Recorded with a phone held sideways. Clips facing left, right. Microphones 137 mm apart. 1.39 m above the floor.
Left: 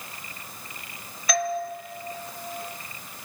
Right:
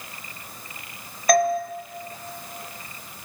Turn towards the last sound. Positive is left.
turn(degrees=-45)  # may be behind; listen again after turning